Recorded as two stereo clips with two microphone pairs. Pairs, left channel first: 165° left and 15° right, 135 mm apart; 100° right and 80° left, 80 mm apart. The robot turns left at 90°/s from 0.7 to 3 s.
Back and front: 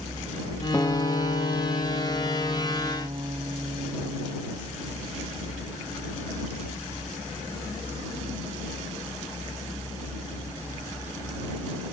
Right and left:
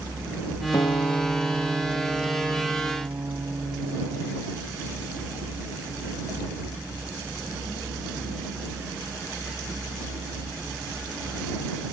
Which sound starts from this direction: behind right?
A guitar, at 0.7 s.